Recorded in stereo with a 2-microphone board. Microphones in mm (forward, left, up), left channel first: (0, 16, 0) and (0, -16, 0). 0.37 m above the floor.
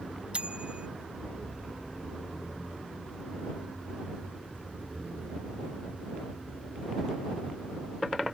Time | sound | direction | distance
0.3 | a bicycle bell | 35° right (ahead or behind) | ?